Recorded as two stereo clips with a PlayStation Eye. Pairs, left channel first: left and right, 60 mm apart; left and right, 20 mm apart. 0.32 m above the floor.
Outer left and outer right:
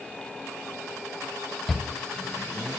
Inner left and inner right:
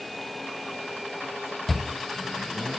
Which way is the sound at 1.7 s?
5° left (ahead or behind).